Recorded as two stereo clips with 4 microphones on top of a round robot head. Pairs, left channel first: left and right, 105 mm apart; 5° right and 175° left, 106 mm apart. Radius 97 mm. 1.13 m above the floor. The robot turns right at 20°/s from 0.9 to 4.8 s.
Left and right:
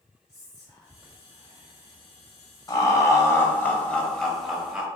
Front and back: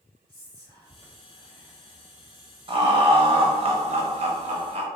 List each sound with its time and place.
0.3 s whispering: 30° left, 1.8 m; by 2.6 s 65° left, 1.8 m
2.7 s laughter: 145° left, 0.8 m; by 4.9 s 170° right, 0.8 m